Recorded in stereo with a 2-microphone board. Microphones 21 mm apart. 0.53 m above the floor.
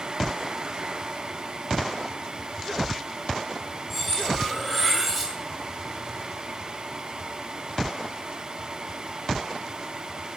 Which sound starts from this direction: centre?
Cutlery clinking, at 3.9 s.